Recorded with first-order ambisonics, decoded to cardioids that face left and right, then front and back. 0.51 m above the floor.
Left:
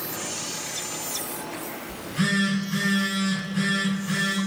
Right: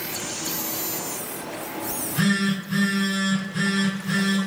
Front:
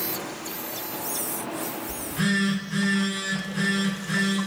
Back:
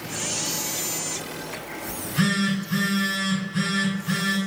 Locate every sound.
1.9 s a phone buzzing: 150° right, 1.9 m